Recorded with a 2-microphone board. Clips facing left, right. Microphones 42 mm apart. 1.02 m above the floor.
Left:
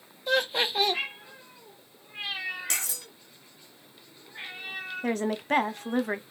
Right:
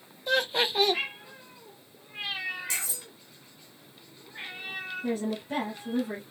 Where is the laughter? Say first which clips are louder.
Even; centre (ahead or behind), 0.6 m.